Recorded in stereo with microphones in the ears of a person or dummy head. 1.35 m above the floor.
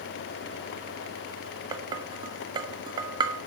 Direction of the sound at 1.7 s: 30° right (ahead or behind).